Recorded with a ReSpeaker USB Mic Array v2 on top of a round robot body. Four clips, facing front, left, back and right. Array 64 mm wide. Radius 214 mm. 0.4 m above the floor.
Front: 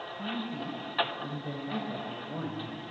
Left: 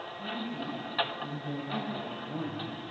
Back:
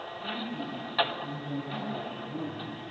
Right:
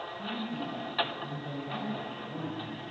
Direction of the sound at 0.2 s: 20° right.